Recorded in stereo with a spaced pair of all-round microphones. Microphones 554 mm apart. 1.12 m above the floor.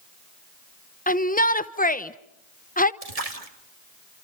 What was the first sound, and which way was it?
A shout, 15° left (ahead or behind).